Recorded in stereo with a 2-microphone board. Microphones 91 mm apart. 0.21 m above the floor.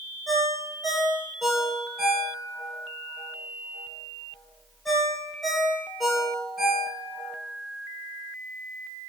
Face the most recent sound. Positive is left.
turn(degrees=0)  # may be behind; listen again after turning